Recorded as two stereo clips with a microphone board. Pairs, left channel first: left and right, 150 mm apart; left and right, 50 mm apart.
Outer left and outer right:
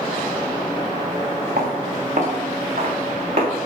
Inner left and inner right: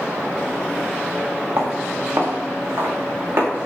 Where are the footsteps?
65° right (ahead or behind), 2.5 m; by 3.5 s 45° right (ahead or behind), 3.5 m.